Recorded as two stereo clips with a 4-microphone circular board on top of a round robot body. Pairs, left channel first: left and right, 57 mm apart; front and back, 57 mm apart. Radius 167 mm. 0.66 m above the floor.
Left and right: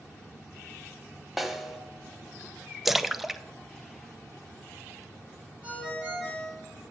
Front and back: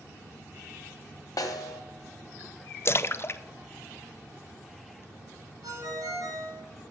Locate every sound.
1.4 s a snare drum: 5° right, 1.6 m
2.9 s a splash: 5° right, 0.7 m
5.6 s a ringtone: 160° right, 3.5 m